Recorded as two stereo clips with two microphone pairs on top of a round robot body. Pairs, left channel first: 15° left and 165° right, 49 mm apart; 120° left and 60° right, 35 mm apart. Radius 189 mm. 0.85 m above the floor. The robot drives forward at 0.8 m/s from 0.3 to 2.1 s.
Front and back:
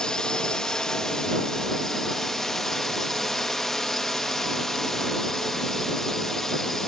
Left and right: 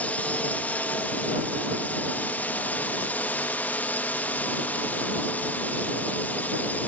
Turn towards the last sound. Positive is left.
turn(degrees=100)